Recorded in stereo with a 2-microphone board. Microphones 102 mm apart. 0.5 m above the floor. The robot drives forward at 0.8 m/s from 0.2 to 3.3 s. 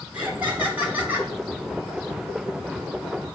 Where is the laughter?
15° right (ahead or behind), 3 m; by 1.3 s 20° right (ahead or behind), 2.5 m.